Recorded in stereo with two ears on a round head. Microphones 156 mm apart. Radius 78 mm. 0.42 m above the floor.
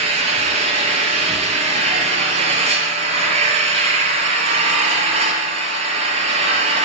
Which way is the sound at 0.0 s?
35° right (ahead or behind).